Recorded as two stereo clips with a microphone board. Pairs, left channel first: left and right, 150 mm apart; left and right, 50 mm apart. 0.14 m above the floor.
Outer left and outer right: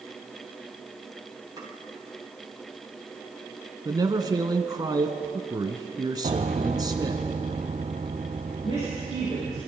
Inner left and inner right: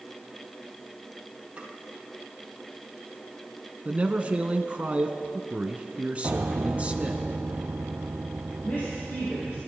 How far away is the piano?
About 0.9 m.